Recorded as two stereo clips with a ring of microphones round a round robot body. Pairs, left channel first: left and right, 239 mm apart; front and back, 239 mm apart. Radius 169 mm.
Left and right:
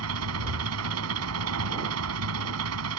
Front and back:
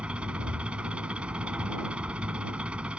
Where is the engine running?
95° right.